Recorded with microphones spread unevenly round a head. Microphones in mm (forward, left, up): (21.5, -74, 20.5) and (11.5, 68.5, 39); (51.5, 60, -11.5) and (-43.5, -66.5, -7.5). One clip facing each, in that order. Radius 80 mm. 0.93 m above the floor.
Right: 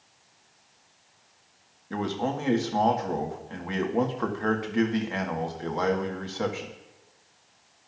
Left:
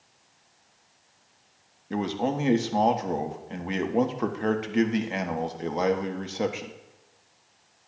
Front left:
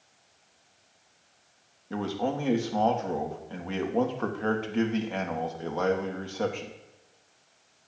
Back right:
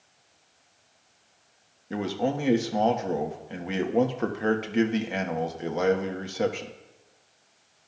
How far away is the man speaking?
About 1.1 m.